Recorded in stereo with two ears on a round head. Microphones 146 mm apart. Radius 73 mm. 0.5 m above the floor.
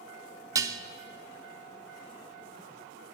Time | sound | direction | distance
0.6 | dishes clattering | 20° right (ahead or behind) | 0.6 m